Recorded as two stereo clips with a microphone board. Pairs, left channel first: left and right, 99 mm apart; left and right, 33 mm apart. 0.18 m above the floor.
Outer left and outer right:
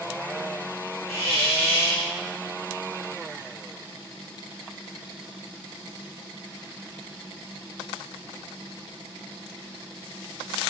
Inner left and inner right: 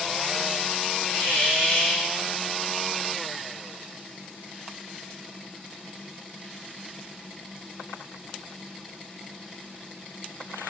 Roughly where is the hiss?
Left.